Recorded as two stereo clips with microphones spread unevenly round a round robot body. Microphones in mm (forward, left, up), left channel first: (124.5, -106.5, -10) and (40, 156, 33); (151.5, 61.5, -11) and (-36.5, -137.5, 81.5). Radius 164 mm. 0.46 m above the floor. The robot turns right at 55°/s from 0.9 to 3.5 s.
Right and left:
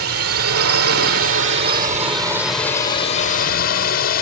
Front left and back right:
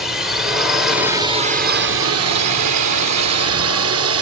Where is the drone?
115° left; by 4.2 s 100° right.